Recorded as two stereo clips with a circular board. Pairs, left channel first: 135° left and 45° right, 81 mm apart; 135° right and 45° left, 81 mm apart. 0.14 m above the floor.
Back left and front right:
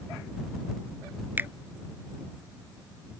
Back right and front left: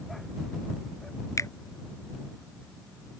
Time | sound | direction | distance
1.4 | a finger snap | 100° right | ?